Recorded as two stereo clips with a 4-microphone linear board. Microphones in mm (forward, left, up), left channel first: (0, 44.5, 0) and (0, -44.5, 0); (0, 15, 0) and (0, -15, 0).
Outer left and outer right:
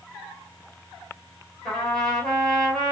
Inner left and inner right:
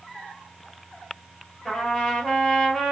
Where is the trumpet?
5° left (ahead or behind), 2.0 m.